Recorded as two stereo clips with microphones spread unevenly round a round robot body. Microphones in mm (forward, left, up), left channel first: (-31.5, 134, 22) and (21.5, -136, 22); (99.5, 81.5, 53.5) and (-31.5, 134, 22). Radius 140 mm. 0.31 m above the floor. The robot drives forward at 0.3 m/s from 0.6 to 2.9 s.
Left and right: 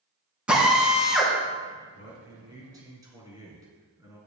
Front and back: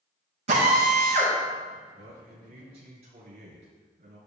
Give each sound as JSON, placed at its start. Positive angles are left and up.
{"t": 0.5, "sound": "a drill", "azimuth_deg": -165, "distance_m": 4.0}
{"t": 1.9, "sound": "a man speaking", "azimuth_deg": -155, "distance_m": 4.0}